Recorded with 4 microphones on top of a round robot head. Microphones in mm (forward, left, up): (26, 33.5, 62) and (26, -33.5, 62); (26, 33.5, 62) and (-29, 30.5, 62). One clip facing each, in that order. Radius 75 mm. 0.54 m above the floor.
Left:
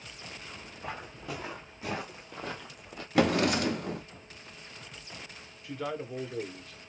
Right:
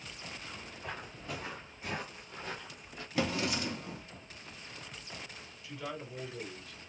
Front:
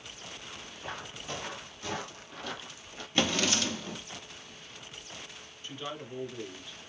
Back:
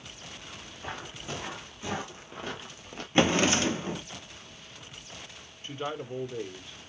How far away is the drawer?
About 0.5 m.